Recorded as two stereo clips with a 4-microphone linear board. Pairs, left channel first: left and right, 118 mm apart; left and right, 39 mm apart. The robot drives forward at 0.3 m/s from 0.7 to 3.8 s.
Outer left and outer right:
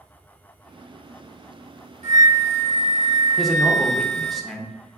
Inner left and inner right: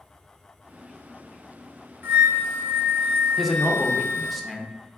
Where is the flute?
75° right (ahead or behind), 1.2 m; by 4.4 s 70° right (ahead or behind), 1.3 m.